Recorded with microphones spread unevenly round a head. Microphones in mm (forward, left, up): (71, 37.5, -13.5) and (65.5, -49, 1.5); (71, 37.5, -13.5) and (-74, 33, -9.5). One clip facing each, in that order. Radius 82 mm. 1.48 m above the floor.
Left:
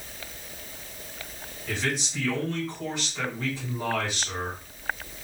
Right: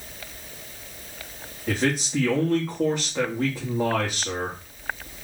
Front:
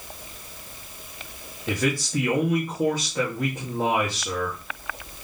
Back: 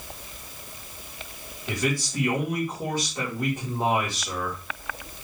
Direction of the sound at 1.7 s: 45° right.